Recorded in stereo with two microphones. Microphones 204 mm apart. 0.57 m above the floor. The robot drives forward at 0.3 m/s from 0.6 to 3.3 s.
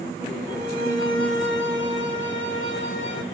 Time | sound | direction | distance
0.5 | a violin | 70° left (ahead or behind) | 2 m